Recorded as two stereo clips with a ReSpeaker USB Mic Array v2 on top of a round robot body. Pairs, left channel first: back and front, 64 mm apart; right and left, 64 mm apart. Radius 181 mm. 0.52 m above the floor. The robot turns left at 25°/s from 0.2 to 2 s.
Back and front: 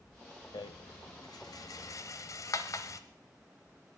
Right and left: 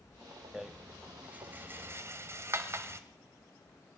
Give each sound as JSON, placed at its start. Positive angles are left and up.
{"t": 0.5, "sound": "a rattle", "azimuth_deg": 175, "distance_m": 0.8}